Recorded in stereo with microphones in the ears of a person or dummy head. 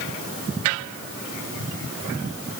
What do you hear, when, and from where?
Only background noise.